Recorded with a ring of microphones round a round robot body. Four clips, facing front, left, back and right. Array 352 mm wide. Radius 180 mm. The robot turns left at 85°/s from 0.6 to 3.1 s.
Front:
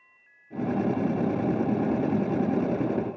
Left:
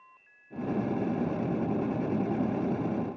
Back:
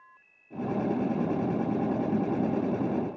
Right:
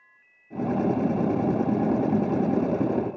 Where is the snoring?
I don't hear snoring.